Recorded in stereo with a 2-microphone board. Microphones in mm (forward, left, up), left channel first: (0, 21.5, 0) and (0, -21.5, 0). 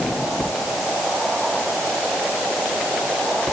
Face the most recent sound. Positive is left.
No sound to turn to.